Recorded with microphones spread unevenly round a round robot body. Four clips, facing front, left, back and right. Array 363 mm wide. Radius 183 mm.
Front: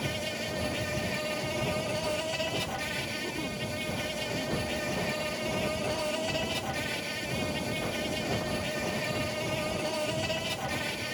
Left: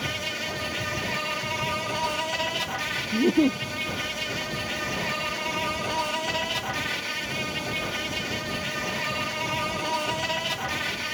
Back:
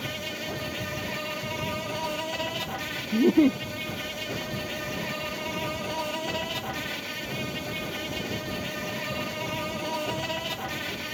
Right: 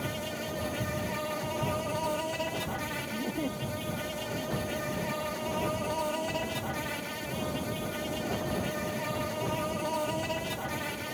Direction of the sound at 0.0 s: 145° right.